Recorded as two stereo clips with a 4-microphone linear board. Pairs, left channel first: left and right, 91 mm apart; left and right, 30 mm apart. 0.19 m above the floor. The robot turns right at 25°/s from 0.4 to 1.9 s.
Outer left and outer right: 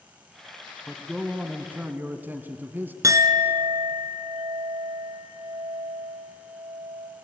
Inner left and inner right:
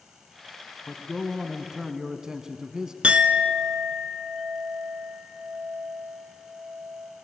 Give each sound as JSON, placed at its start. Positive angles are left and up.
{"t": 0.9, "sound": "a man speaking", "side_deg": -5, "distance_m": 1.3}
{"t": 3.0, "sound": "a clink", "side_deg": -40, "distance_m": 1.2}